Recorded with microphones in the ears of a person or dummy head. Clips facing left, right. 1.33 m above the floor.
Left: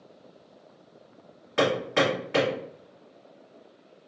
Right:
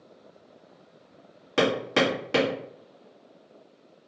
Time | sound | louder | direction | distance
1.6 | hammering | even | 45° right (ahead or behind) | 1.1 m